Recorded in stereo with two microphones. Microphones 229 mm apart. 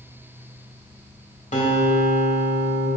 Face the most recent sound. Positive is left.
turn(degrees=30)  # may be behind; listen again after turning